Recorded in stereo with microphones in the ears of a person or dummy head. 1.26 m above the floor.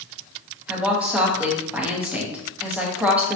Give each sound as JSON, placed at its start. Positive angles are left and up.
{"t": 0.7, "sound": "a woman speaking", "side_deg": -10, "distance_m": 0.9}